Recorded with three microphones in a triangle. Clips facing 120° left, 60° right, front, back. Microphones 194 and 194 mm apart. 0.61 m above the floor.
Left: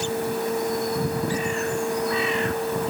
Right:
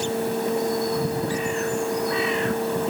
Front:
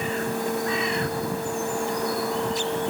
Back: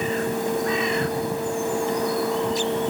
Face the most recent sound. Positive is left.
No sound to turn to.